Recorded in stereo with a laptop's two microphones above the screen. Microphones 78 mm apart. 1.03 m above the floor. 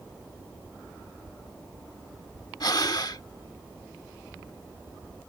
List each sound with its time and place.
2.6 s breathing: 55° left (ahead or behind)